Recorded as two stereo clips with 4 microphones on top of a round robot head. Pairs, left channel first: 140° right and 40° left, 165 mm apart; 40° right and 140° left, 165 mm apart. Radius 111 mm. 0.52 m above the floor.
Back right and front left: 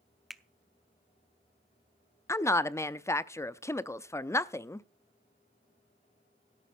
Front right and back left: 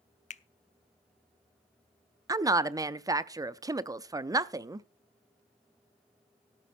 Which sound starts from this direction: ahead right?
A finger snap, at 0.3 s.